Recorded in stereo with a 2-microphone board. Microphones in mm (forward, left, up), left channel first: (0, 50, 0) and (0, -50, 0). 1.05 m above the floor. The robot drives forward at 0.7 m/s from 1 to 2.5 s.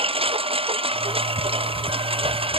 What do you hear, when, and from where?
0.0 s a lawn mower: 70° right (ahead or behind); by 2.6 s 65° right (ahead or behind)